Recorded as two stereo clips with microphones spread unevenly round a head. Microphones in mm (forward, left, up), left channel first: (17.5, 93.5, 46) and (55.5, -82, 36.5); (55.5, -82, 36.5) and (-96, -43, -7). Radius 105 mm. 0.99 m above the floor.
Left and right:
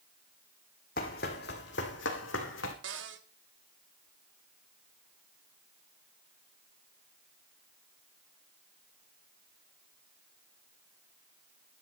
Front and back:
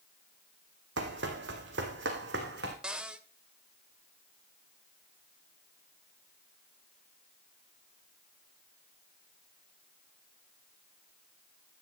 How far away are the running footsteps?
About 2 m.